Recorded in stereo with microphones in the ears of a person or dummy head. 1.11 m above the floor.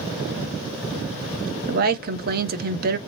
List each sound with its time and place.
1.7 s a woman speaking: 40° right (ahead or behind), 0.6 m